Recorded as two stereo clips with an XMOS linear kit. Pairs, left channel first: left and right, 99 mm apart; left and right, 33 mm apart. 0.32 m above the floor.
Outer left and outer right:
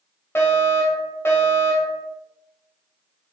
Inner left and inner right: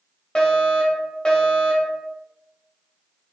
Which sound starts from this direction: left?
A fire alarm, at 0.3 s.